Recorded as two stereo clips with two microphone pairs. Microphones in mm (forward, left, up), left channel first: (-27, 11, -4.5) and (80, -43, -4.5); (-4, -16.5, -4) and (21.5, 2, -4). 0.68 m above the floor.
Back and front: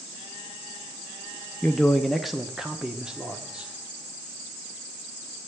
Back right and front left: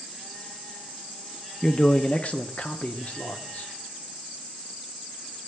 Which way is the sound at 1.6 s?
130° right.